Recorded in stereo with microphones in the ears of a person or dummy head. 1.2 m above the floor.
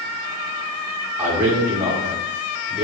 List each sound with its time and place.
1.2 s a man speaking: 10° right (ahead or behind), 2.5 m